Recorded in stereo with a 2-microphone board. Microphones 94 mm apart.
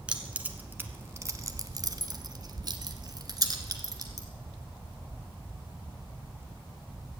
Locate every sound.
0.1 s keys jangling: 10° right (ahead or behind), 1.3 m; by 4.3 s 40° right (ahead or behind), 1.9 m